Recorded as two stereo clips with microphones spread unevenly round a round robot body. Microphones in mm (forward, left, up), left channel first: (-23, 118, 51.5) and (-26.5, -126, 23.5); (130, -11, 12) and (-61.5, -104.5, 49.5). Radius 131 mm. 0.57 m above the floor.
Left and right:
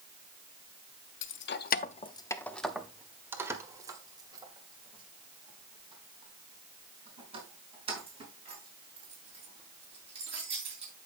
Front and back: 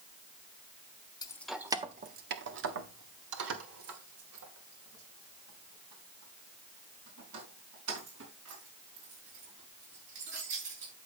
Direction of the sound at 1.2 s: 80° left.